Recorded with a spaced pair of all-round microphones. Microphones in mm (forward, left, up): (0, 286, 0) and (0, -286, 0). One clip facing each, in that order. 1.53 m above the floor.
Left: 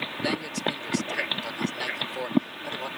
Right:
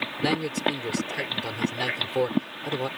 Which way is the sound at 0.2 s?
70° right (ahead or behind).